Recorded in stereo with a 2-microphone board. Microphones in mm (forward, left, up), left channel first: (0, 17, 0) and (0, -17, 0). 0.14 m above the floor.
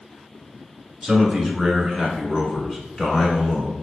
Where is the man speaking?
5° right (ahead or behind), 1.3 m; by 3.7 s 10° left (ahead or behind), 1.3 m.